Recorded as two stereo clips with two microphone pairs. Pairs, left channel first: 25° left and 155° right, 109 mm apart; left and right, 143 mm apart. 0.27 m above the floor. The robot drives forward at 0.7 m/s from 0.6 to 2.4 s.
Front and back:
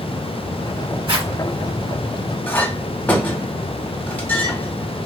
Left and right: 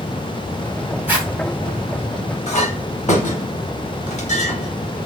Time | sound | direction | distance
1.1 | a zipper | 160° right | 1.1 m
2.5 | a clink | 95° left | 0.9 m